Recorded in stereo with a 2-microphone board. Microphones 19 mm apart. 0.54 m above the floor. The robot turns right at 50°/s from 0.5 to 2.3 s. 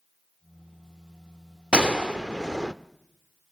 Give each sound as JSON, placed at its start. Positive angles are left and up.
{"t": 1.7, "sound": "a gunshot", "side_deg": -65, "distance_m": 0.6}